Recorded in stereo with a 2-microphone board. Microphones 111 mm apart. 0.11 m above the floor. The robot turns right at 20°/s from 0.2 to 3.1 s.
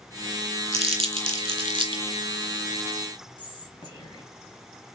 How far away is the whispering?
About 1.6 m.